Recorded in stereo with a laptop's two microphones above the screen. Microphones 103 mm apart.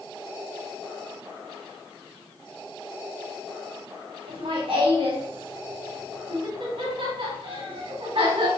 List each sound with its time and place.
4.3 s laughter: 60° right (ahead or behind), 1.5 m